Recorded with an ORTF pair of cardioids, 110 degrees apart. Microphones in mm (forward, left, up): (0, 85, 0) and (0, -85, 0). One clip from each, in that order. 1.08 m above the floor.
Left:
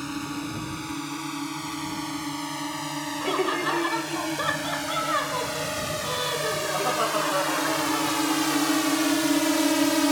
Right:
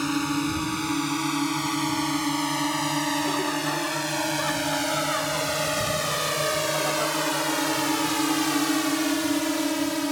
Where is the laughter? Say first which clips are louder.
Left 1 dB; 40° left.